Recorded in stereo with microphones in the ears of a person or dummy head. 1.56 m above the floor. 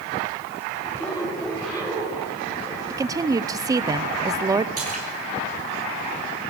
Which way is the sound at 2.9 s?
15° right (ahead or behind).